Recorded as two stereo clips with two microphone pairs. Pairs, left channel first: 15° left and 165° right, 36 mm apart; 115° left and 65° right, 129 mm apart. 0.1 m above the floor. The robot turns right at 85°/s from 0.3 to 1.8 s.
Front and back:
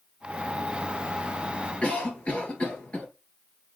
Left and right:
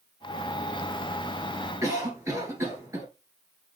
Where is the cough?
15° right, 1.5 m.